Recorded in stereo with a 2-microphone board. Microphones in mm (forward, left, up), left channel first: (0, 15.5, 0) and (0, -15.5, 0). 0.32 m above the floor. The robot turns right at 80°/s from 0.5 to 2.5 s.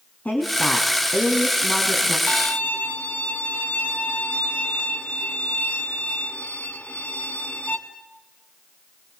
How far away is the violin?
About 2.5 m.